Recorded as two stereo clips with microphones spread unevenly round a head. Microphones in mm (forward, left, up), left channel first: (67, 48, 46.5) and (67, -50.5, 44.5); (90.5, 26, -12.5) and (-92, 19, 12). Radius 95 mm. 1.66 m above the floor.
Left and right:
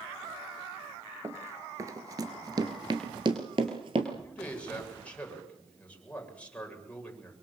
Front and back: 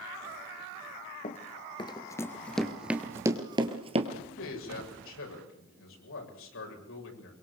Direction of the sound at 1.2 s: 40° right.